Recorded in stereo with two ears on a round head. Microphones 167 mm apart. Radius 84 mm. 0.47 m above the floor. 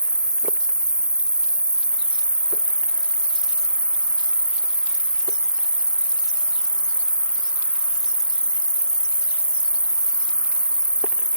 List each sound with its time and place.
0.0 s an insect: 5° right (ahead or behind)